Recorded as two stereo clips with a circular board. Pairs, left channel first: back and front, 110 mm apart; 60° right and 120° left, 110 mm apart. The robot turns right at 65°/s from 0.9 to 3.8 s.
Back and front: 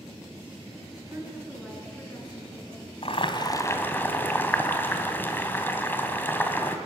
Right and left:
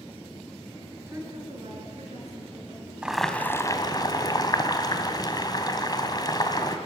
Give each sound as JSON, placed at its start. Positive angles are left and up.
{"t": 1.1, "sound": "a woman speaking", "azimuth_deg": 50, "distance_m": 5.5}
{"t": 3.0, "sound": "boiling", "azimuth_deg": -160, "distance_m": 2.0}